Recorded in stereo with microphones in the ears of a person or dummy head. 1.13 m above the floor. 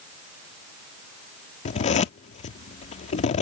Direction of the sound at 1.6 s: 40° left (ahead or behind).